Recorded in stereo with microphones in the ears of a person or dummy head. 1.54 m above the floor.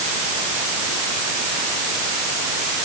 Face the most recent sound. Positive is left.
No sound to turn to.